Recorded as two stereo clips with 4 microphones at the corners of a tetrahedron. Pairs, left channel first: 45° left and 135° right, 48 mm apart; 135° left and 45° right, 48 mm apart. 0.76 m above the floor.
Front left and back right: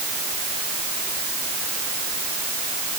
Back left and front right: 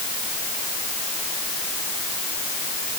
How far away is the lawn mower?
No lawn mower in this recording.